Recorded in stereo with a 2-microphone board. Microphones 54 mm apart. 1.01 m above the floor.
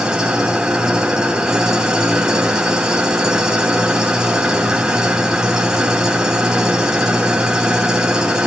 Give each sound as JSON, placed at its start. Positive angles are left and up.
{"t": 0.0, "sound": "an engine running", "side_deg": -10, "distance_m": 3.5}